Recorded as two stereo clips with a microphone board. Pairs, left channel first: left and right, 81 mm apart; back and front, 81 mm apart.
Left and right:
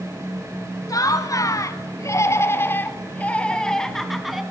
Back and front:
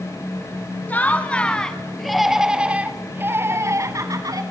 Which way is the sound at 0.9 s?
115° left.